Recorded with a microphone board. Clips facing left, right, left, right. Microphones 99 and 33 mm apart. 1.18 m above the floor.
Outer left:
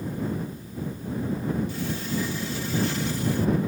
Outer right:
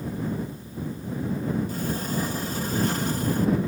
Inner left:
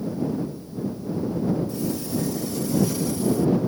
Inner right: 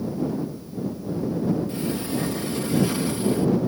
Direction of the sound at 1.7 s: 45° right (ahead or behind).